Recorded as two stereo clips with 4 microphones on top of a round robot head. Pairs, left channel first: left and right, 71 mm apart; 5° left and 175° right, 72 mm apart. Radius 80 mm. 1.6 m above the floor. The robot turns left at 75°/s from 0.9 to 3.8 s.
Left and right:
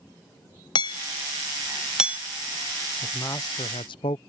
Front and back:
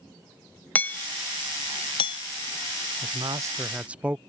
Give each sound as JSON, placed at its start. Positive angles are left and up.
{"t": 0.8, "sound": "hammering", "azimuth_deg": 75}
{"t": 3.0, "sound": "a man speaking", "azimuth_deg": 175}